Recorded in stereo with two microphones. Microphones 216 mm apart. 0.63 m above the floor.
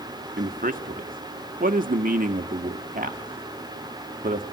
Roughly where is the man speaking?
Right.